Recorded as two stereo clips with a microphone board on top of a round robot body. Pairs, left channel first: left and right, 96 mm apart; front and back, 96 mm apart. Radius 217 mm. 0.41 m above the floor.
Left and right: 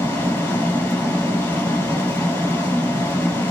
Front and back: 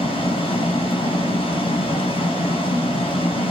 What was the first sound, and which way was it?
Running water, 20° left.